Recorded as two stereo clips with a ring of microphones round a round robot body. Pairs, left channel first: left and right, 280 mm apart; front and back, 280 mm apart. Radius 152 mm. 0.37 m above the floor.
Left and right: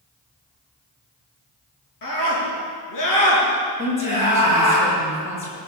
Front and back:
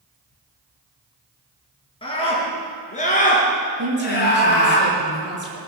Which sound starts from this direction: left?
A scream, at 2.0 s.